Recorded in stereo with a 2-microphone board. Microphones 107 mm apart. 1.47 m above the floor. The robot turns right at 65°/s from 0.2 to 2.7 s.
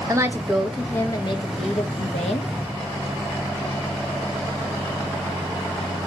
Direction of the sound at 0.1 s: 25° right.